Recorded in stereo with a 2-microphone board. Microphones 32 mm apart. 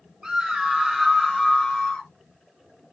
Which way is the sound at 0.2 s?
20° right (ahead or behind).